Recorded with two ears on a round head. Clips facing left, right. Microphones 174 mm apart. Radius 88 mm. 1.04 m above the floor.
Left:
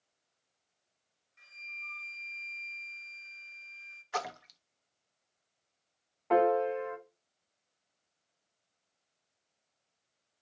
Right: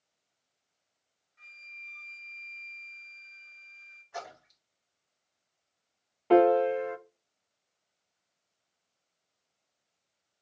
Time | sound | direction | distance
1.4 | a flute | 35° left (ahead or behind) | 1.8 m
4.1 | a splash | 80° left | 0.7 m
6.3 | a piano | 40° right (ahead or behind) | 0.6 m